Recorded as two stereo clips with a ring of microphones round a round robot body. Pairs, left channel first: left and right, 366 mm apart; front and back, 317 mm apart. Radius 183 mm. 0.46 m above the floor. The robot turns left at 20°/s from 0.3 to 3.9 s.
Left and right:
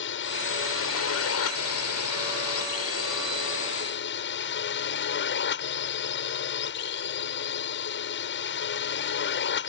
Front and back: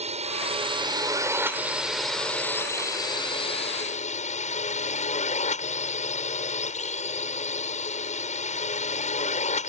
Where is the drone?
125° left; by 9.7 s 55° left.